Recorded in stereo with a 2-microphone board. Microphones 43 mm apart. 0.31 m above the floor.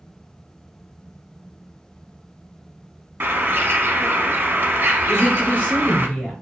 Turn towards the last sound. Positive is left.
turn(degrees=25)  # may be behind; listen again after turning